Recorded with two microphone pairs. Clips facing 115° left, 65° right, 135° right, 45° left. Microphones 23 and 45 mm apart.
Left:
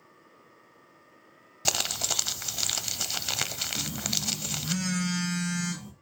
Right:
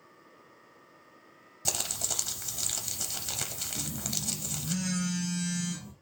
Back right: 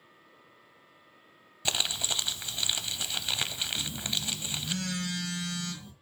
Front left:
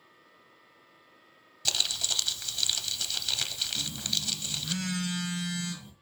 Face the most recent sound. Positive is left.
turn(degrees=125)